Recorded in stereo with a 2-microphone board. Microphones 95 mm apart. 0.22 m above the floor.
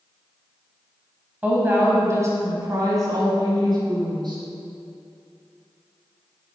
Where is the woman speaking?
20° right (ahead or behind), 1.5 m; by 4.4 s 50° right (ahead or behind), 3 m.